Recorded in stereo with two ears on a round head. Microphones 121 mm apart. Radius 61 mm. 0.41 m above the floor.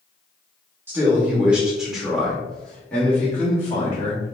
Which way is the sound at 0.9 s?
15° right (ahead or behind).